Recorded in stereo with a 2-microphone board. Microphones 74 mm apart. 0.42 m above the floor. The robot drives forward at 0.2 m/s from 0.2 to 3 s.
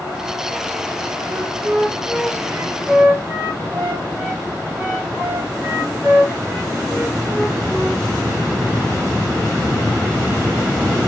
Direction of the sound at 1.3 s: 20° right (ahead or behind).